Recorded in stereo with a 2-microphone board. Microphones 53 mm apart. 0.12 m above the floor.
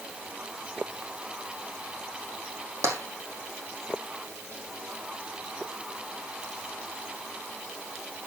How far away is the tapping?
About 4 m.